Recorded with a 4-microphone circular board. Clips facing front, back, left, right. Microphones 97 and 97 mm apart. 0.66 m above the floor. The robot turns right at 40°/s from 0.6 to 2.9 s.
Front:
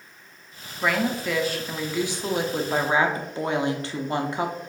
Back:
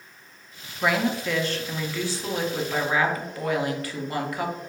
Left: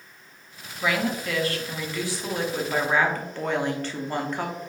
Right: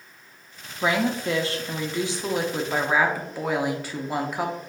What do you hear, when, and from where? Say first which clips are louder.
0.8 s a woman speaking: even, right 2 dB; 100° right, 0.5 m; by 4.5 s 20° right, 0.5 m